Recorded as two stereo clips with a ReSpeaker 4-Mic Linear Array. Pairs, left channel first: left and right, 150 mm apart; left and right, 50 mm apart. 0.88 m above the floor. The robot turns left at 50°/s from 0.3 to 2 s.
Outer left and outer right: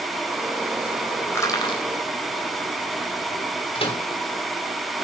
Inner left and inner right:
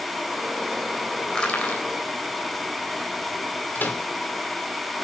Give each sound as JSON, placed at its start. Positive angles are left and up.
{"t": 1.3, "sound": "crushing", "side_deg": 15, "distance_m": 3.5}
{"t": 3.8, "sound": "a microwave", "side_deg": 40, "distance_m": 2.5}